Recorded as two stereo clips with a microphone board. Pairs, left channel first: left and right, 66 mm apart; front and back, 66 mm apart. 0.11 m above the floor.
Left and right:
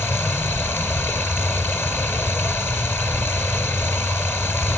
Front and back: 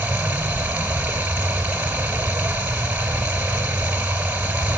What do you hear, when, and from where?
0.0 s running water: 125° left, 1.5 m